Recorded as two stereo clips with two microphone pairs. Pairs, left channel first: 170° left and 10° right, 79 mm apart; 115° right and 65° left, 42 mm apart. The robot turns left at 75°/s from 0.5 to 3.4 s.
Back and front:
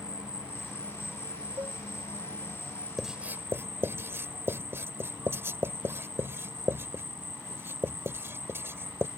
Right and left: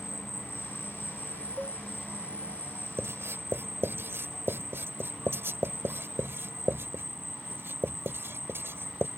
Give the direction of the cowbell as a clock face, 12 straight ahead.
12 o'clock.